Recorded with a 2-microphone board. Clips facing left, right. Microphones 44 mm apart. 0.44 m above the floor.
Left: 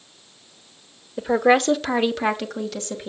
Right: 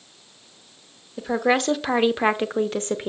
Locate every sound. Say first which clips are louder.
1.2 s a woman speaking: left 4 dB; 10° left (ahead or behind), 0.9 m; by 3.1 s 40° right (ahead or behind), 1.0 m